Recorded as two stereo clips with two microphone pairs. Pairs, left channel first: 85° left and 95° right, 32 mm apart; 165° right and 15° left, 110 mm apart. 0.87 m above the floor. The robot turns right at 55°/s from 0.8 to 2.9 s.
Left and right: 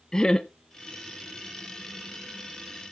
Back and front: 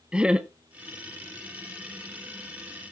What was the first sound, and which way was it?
Laughter, 75° left.